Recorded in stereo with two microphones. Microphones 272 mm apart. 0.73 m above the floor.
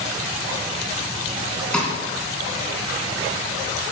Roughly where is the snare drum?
Centre.